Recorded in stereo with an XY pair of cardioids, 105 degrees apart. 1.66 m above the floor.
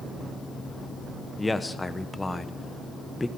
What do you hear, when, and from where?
1.4 s a man speaking: 15° left, 1.0 m